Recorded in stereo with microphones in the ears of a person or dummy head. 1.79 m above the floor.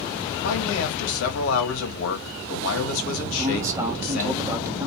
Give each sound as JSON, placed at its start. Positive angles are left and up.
{"t": 0.4, "sound": "a man speaking", "side_deg": 75, "distance_m": 2.5}
{"t": 3.4, "sound": "a man speaking", "side_deg": -15, "distance_m": 1.5}